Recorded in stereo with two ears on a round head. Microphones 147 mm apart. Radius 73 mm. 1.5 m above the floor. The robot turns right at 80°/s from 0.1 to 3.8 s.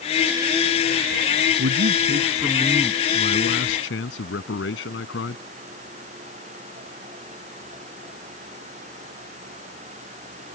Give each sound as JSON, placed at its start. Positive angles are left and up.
{"t": 1.6, "sound": "a man speaking", "azimuth_deg": -85}